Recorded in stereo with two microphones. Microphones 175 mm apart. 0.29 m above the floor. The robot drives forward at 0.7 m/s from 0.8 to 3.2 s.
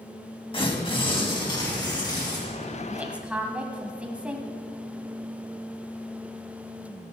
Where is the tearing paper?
30° left (ahead or behind), 2 m; by 2.4 s 20° left (ahead or behind), 3 m.